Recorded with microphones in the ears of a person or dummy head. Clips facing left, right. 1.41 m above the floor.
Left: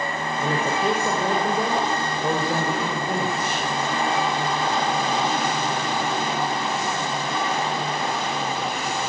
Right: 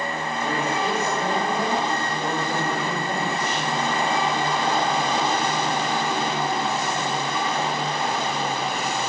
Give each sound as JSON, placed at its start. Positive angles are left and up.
{"t": 0.4, "sound": "a woman speaking", "side_deg": 80, "distance_m": 6.0}